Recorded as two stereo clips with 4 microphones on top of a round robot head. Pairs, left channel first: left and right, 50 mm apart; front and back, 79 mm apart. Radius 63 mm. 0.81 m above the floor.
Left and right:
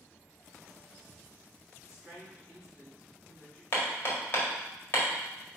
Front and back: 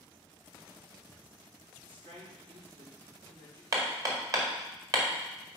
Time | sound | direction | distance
1.8 | a woman speaking | 165° right | 2.5 m
3.7 | hammering | 140° left | 1.7 m